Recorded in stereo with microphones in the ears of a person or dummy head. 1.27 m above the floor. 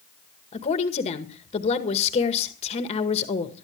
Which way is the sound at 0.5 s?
30° left (ahead or behind).